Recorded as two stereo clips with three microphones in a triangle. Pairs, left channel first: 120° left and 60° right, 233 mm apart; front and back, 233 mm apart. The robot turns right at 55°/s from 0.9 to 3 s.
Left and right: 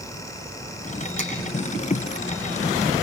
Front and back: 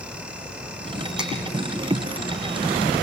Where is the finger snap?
95° right, 7 m; by 1.3 s 85° right, 7 m.